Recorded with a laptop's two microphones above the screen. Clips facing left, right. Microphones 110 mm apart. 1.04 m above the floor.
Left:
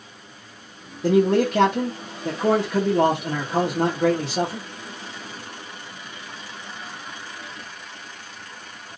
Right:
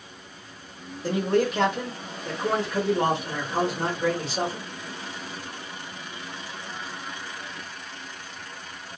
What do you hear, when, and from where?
1.0 s a man speaking: 70° left (ahead or behind), 0.9 m